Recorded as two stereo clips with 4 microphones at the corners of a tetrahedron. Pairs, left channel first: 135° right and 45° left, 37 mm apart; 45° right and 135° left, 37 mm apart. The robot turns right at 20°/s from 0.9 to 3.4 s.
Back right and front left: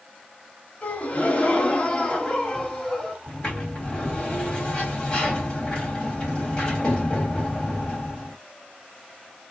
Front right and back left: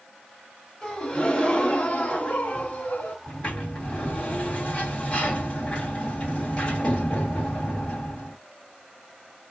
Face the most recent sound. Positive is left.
turn(degrees=-85)